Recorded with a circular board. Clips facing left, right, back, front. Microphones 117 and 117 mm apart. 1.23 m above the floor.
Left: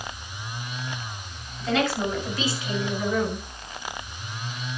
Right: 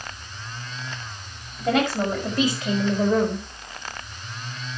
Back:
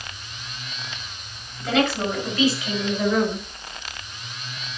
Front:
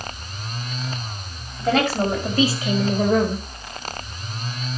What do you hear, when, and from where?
1.6 s a woman speaking: 50° right, 6 m; by 3.5 s 55° right, 4 m